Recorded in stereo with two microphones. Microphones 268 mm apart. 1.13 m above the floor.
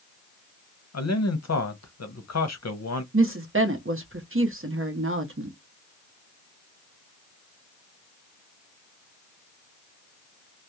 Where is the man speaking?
75° left (ahead or behind), 0.6 m.